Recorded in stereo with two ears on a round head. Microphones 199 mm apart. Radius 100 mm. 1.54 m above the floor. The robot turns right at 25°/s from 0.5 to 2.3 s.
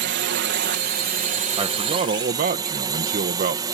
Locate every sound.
0.0 s a drone: 65° right; by 3.7 s 20° right
1.6 s a man speaking: 25° right (ahead or behind); by 3.6 s 40° right (ahead or behind)